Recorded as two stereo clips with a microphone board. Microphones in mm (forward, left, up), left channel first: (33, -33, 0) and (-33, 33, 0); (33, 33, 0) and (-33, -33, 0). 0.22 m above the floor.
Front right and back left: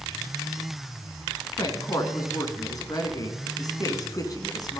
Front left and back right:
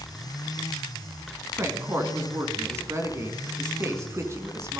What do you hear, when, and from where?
1.6 s a woman speaking: 80° right, 1.9 m